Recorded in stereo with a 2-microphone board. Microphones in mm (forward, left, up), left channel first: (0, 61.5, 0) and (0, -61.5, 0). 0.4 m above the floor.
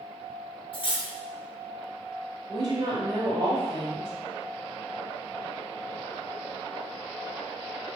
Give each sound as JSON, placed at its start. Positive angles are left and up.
{"t": 0.7, "sound": "cutlery clinking", "side_deg": 45, "distance_m": 0.6}
{"t": 2.5, "sound": "a woman speaking", "side_deg": -35, "distance_m": 1.1}